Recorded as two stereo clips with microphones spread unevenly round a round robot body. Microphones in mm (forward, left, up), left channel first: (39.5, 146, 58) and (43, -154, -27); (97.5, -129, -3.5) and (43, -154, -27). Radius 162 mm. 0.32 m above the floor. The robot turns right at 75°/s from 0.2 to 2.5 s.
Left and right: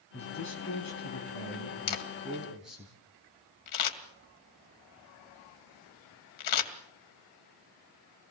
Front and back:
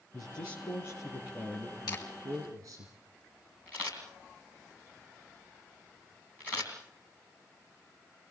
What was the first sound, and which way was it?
A man speaking, 15° left.